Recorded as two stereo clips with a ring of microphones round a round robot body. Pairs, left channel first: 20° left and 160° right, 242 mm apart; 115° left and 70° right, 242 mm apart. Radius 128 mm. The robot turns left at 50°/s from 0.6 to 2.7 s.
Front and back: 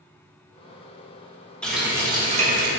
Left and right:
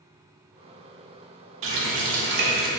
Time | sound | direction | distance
1.6 | a running tap | 60° right | 0.6 m